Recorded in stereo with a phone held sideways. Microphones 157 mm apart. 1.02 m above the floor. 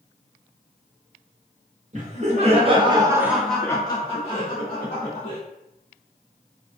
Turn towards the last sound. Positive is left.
turn(degrees=60)  # may be behind; listen again after turning